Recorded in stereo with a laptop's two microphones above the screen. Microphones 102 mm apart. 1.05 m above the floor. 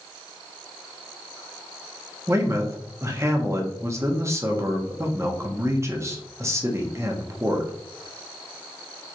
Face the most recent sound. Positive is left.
turn(degrees=-30)  # may be behind; listen again after turning